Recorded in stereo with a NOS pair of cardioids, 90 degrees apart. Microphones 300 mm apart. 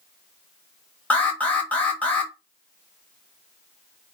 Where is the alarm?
5° left, 1.3 m.